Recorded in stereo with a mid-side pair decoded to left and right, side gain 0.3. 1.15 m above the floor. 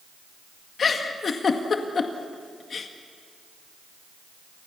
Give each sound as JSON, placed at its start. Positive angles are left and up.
{"t": 0.8, "sound": "a giggle", "azimuth_deg": 65, "distance_m": 2.0}